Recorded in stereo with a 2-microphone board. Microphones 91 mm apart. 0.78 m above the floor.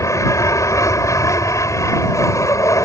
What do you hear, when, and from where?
0.0 s an aircraft: 35° left (ahead or behind)